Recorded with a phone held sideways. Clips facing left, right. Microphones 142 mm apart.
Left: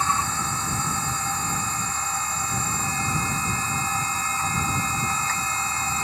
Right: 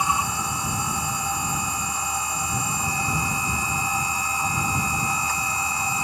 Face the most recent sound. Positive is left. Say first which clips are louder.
# right 1 dB
turn(degrees=-10)  # may be behind; listen again after turning